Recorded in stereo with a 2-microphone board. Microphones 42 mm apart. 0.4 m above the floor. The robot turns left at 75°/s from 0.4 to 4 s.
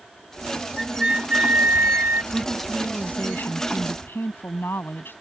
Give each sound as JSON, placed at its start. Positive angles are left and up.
{"t": 0.8, "sound": "a flute", "azimuth_deg": 5}
{"t": 2.3, "sound": "a woman speaking", "azimuth_deg": -155}